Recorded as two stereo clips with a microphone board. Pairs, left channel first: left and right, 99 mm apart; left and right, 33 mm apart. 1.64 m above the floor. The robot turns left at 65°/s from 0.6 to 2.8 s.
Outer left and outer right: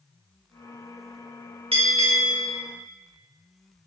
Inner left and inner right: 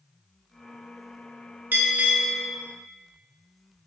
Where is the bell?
80° right, 0.9 m; by 2.5 s 130° right, 0.9 m.